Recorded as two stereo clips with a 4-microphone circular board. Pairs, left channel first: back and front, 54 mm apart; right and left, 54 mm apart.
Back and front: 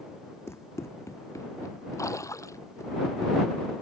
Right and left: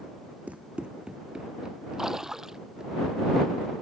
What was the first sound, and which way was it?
Running footsteps, 150° left.